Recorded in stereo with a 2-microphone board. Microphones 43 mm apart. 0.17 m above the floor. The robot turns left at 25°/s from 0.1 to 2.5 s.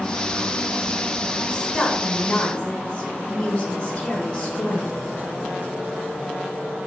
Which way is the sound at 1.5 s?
5° left (ahead or behind).